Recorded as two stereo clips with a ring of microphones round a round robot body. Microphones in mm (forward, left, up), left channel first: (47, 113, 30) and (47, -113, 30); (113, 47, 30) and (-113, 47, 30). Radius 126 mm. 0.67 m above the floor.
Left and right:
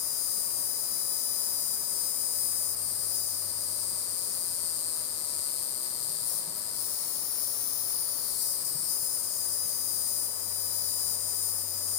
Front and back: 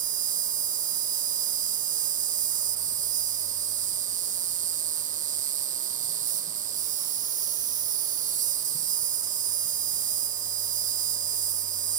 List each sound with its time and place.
0.0 s an insect: 120° left, 0.8 m